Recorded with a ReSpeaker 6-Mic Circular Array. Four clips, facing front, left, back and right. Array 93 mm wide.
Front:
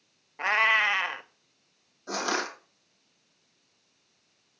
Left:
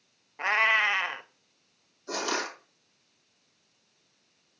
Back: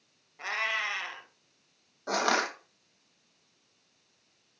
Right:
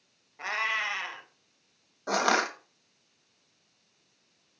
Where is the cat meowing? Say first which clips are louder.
Left 6 dB, front 9 dB; 40° left, 0.7 m.